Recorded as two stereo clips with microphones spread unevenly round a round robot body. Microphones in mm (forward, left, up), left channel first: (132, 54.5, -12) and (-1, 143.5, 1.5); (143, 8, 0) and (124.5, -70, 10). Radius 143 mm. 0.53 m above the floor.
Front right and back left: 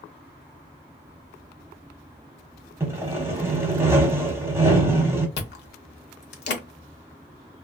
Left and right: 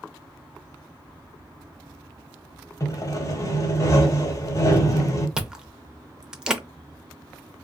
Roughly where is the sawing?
Left.